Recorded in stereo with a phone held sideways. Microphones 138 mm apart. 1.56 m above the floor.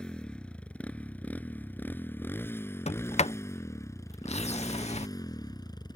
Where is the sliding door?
50° left (ahead or behind).